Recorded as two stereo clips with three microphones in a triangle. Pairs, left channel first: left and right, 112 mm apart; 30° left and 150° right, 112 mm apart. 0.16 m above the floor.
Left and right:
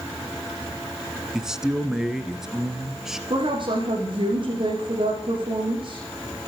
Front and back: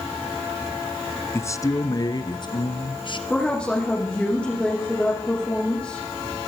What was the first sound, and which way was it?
A man speaking, 10° right.